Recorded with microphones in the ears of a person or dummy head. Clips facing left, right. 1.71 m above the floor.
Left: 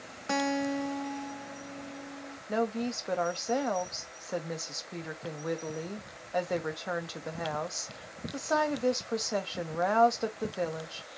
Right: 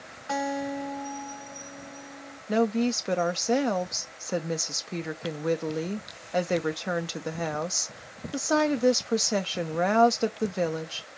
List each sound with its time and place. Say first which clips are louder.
0.3 s a guitar: even; 40° left (ahead or behind), 1.3 m
2.5 s a woman speaking: right 6 dB; 40° right (ahead or behind), 0.6 m